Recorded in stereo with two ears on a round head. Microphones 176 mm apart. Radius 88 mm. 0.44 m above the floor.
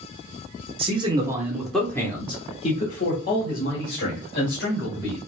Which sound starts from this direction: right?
A man speaking, at 0.8 s.